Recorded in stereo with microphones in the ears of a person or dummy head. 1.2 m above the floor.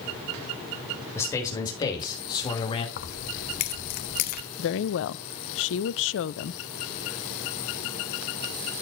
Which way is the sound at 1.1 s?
15° left (ahead or behind).